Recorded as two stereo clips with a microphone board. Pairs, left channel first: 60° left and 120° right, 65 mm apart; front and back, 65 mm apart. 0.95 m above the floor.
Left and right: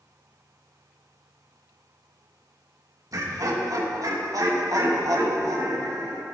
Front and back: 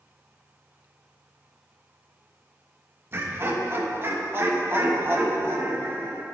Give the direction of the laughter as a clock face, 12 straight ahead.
4 o'clock.